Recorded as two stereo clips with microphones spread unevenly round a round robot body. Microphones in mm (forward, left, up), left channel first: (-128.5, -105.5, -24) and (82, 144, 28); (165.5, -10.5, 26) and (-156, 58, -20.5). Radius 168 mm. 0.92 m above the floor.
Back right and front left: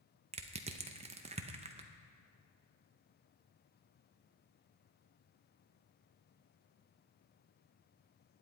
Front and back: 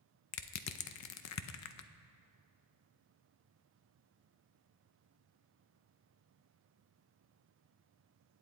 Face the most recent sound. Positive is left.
turn(degrees=-25)